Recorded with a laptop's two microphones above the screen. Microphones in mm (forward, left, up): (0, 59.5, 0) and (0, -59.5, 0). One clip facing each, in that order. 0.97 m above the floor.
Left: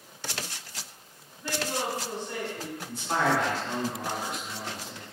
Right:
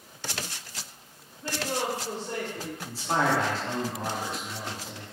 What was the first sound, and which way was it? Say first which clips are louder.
A woman speaking: right 1 dB; 25° right (ahead or behind).